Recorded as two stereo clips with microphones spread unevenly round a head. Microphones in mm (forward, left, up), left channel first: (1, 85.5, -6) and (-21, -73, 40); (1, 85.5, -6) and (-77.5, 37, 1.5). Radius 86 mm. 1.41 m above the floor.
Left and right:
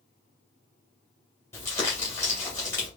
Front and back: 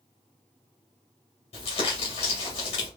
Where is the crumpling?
10° left, 2 m.